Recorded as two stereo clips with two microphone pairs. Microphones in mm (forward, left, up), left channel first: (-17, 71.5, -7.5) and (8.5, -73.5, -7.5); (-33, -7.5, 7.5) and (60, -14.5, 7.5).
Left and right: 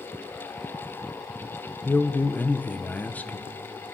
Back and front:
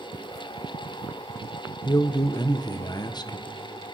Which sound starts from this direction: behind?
A man speaking, at 1.9 s.